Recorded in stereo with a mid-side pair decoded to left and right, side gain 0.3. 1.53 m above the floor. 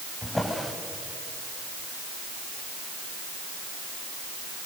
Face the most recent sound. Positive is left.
turn(degrees=20)